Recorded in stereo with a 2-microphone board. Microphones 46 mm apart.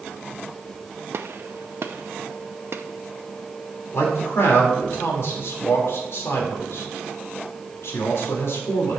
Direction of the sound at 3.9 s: 65° left (ahead or behind).